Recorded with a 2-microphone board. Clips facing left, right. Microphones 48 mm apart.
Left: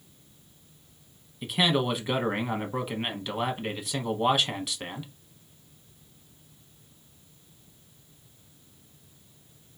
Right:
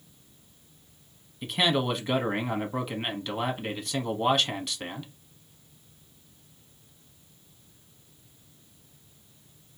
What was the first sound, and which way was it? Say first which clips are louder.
A man speaking: even; 5° left (ahead or behind).